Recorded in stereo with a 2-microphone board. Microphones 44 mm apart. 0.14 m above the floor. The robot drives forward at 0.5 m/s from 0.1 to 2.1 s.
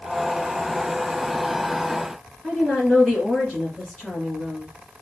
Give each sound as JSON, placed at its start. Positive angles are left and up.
{"t": 2.4, "sound": "a woman speaking", "side_deg": 0, "distance_m": 1.7}